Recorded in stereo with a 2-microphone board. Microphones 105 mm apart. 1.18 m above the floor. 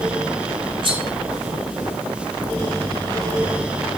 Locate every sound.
0.8 s cutlery clinking: 55° right (ahead or behind), 3 m